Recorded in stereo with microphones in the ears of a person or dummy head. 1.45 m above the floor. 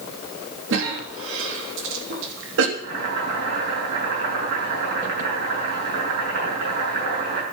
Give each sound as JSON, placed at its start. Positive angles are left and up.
{"t": 0.7, "sound": "a cough", "side_deg": -70, "distance_m": 3.5}
{"t": 2.8, "sound": "boiling", "side_deg": -60, "distance_m": 6.5}